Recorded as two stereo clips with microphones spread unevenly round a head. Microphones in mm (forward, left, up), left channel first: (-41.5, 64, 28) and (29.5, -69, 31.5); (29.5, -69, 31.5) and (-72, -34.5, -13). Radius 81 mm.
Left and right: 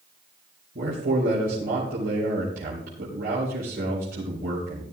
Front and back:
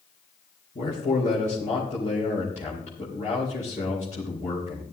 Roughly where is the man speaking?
Ahead right.